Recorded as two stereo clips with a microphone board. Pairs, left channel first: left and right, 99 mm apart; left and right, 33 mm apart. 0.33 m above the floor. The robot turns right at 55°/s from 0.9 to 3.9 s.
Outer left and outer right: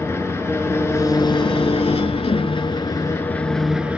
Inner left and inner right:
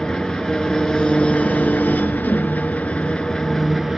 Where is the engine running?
25° left, 1.0 m; by 4.0 s 170° right, 1.0 m.